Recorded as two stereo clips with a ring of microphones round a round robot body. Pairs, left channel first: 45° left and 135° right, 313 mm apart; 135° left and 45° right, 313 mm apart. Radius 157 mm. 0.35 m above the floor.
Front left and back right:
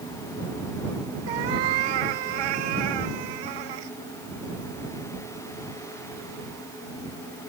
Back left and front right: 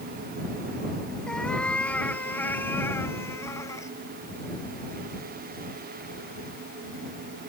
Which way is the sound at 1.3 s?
135° right.